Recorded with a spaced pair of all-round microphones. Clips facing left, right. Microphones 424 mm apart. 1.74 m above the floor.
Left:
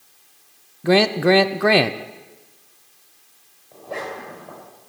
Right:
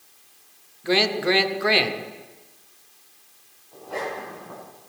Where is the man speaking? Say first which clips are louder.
Left 6 dB; 70° left (ahead or behind), 0.7 m.